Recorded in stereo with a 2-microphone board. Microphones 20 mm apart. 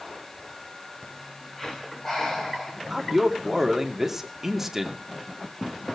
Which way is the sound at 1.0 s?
5° left (ahead or behind).